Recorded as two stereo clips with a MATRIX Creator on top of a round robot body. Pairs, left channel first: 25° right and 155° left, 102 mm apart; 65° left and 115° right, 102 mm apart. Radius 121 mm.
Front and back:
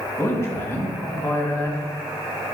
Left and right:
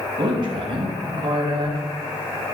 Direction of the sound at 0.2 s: 85° right.